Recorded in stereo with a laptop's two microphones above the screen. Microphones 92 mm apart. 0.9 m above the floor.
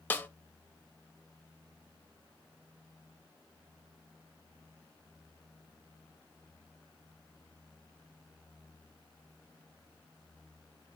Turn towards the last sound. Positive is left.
turn(degrees=20)  # may be behind; listen again after turning